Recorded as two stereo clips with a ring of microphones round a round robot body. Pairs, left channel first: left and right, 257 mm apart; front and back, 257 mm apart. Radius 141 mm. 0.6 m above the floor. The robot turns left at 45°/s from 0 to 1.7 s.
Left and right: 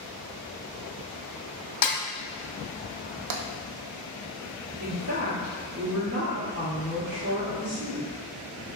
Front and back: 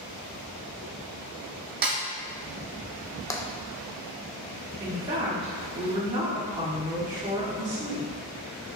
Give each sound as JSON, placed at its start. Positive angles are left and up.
{"t": 1.8, "sound": "a snare drum", "azimuth_deg": 120, "distance_m": 0.7}
{"t": 3.3, "sound": "tapping", "azimuth_deg": -80, "distance_m": 0.5}
{"t": 4.8, "sound": "a woman speaking", "azimuth_deg": -125, "distance_m": 1.6}